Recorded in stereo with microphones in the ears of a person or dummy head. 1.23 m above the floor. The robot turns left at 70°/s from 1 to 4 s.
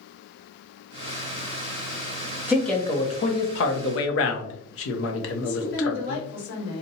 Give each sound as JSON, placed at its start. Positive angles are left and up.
{"t": 2.5, "sound": "a man speaking", "side_deg": -5, "distance_m": 0.6}
{"t": 5.4, "sound": "a woman speaking", "side_deg": 55, "distance_m": 1.6}